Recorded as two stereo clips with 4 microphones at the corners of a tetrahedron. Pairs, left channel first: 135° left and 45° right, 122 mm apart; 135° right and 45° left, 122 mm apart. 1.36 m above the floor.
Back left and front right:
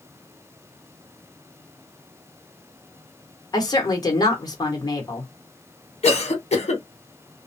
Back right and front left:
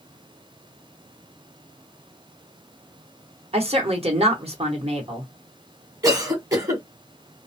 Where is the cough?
105° left, 1.2 m.